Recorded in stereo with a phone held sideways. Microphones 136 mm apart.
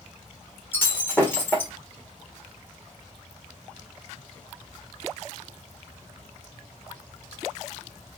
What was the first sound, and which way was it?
Breaking glass, 15° left (ahead or behind).